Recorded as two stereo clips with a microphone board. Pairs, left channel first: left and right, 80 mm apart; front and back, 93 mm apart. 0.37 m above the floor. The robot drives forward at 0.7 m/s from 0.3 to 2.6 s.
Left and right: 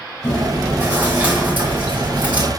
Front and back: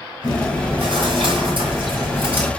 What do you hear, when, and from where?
0.2 s chewing: 155° right, 4.5 m; by 2.5 s 160° right, 5.5 m